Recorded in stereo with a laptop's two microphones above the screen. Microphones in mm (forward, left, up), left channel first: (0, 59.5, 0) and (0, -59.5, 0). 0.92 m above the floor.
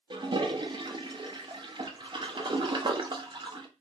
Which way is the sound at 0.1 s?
40° right (ahead or behind).